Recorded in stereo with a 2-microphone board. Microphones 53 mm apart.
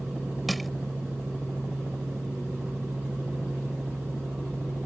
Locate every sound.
0.5 s crushing: centre (ahead or behind)